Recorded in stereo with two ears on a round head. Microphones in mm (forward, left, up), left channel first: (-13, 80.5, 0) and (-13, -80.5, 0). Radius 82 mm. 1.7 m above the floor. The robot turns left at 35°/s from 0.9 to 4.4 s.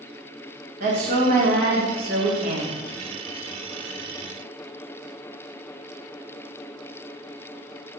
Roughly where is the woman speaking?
Ahead right.